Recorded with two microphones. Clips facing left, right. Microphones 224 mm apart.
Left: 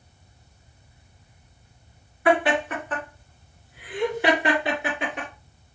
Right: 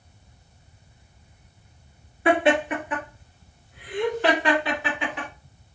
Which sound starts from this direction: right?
Laughter, at 2.2 s.